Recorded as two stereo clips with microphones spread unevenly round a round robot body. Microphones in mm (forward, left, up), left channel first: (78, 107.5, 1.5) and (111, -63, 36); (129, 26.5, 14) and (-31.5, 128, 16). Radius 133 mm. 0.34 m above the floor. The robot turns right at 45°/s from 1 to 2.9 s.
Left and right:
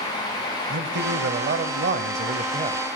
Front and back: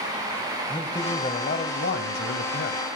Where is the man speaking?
100° right, 2 m; by 2.8 s 20° right, 2 m.